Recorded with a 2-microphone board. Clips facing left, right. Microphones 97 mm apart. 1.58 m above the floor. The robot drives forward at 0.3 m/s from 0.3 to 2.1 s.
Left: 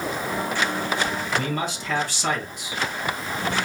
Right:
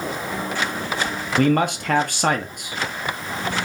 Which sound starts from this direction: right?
A man speaking, at 1.4 s.